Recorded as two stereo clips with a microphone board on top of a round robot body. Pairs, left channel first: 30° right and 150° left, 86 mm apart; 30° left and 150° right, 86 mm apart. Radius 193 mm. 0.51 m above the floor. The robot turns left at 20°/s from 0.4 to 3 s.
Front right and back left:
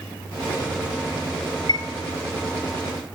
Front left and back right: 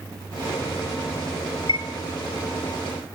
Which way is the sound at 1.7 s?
10° left.